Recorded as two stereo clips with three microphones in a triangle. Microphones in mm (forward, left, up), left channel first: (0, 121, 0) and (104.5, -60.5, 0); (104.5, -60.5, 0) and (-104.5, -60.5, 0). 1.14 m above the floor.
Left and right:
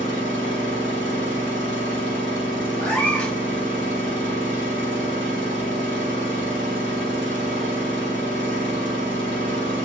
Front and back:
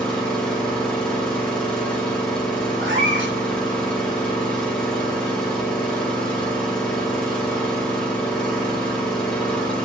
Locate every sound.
0.0 s an engine running: 85° right, 7 m
2.8 s a cat meowing: 155° right, 3.5 m